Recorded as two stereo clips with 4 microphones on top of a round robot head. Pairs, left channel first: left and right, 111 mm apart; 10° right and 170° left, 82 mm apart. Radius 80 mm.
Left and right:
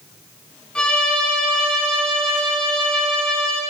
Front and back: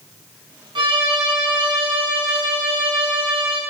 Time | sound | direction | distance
0.8 | a violin | 170° left | 3 m